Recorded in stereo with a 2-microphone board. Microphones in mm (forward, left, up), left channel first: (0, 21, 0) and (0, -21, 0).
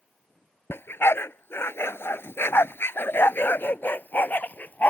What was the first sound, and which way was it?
A dog barking, 70° left (ahead or behind).